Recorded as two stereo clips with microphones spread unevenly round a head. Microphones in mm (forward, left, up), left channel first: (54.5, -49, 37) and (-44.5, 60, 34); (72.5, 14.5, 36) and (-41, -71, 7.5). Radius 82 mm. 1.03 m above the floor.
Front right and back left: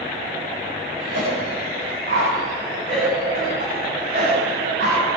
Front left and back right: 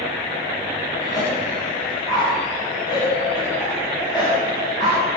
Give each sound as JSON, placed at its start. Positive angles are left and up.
{"t": 1.0, "sound": "a cough", "azimuth_deg": 105, "distance_m": 8.0}